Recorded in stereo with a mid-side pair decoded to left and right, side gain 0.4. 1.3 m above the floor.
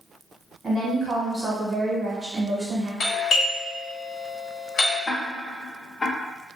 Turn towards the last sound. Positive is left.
turn(degrees=40)